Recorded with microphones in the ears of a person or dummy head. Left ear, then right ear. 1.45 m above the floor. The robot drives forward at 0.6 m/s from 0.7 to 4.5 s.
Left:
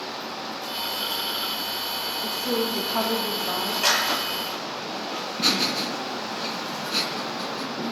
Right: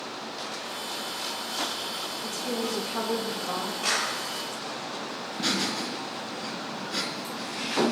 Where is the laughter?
25° left (ahead or behind), 2.5 m.